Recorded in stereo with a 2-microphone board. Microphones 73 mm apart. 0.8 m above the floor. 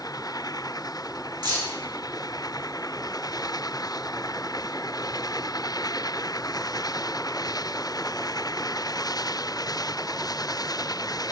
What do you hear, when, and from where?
1.4 s keys jangling: 80° right, 1.2 m